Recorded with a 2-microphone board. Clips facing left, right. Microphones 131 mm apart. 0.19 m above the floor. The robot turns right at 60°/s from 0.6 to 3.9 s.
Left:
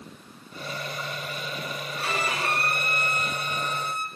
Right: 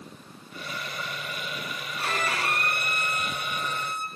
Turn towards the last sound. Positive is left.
turn(degrees=115)